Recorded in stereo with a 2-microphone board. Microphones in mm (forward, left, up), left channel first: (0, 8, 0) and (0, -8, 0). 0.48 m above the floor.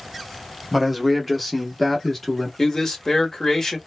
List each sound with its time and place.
0.7 s a man speaking: centre (ahead or behind), 0.9 m; by 2.5 s 5° left (ahead or behind), 0.9 m
2.6 s a man speaking: 30° left (ahead or behind), 0.9 m